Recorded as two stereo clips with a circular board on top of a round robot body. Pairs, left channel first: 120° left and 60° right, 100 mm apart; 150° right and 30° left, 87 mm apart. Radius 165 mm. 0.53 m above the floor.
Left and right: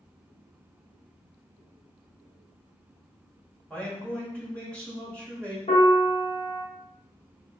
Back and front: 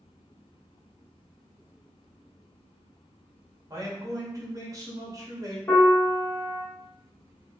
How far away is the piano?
About 0.8 m.